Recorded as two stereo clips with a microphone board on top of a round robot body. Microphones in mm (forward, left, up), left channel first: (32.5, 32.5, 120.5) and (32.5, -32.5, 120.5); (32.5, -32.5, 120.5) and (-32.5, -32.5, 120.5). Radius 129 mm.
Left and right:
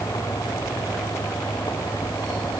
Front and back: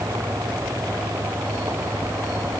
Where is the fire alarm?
I don't hear a fire alarm.